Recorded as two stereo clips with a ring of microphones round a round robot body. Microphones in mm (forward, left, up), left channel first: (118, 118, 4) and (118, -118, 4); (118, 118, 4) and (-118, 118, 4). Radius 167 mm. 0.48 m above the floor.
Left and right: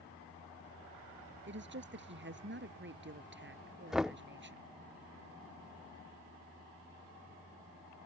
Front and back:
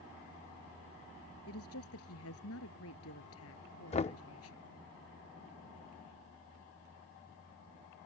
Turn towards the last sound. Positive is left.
turn(degrees=-5)